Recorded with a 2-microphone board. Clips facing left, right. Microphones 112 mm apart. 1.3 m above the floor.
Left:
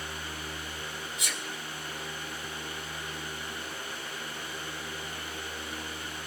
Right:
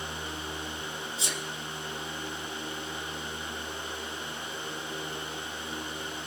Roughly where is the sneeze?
Right.